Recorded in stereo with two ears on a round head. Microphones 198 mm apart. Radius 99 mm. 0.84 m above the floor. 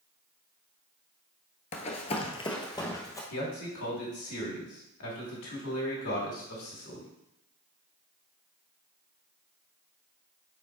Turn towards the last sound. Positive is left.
turn(degrees=75)  # may be behind; listen again after turning